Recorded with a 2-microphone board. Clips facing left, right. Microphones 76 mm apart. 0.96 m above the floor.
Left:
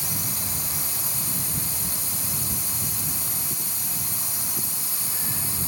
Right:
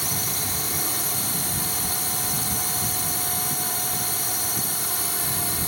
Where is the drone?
60° right (ahead or behind).